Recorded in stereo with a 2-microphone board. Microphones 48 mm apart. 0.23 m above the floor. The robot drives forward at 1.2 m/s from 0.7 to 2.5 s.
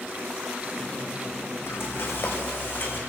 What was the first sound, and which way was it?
Frying, 60° left (ahead or behind).